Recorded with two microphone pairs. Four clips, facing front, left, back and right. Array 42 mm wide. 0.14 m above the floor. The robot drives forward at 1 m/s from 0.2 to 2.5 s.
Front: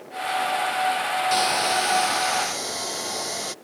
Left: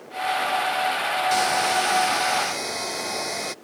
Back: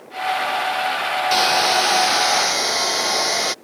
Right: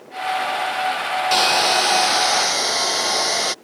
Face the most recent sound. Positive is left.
turn(degrees=-130)